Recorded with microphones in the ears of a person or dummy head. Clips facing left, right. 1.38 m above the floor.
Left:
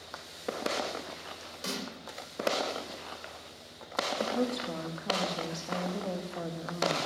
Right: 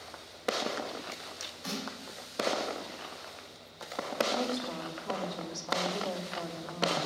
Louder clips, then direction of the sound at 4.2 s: Right 1 dB; 30° left (ahead or behind).